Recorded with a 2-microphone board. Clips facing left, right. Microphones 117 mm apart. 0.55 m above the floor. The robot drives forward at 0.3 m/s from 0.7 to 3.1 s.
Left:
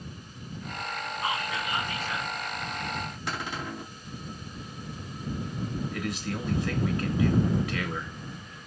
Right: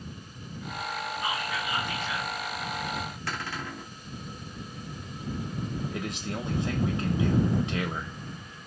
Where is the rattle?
I don't hear a rattle.